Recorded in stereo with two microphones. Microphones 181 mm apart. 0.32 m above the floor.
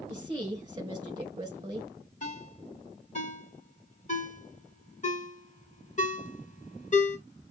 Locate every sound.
0.1 s a woman speaking: 25° right (ahead or behind), 1.7 m
2.2 s a ringtone: 40° left (ahead or behind), 1.4 m